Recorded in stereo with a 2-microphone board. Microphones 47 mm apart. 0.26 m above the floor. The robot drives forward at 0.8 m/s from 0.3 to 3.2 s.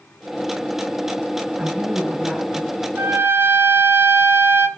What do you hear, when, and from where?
1.6 s a woman speaking: 35° right (ahead or behind), 4 m; by 2.9 s 30° right (ahead or behind), 5 m
3.0 s a trumpet: 60° right (ahead or behind), 1.1 m; by 4.7 s 55° right (ahead or behind), 1.2 m